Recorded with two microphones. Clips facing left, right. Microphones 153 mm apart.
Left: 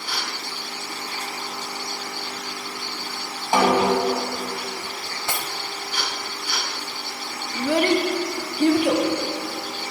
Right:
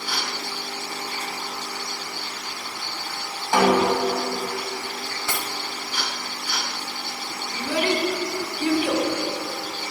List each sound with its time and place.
3.5 s a snare drum: 20° left (ahead or behind), 2.5 m
5.0 s cutlery clinking: 20° left (ahead or behind), 0.8 m
7.5 s a child speaking: 55° left (ahead or behind), 1.0 m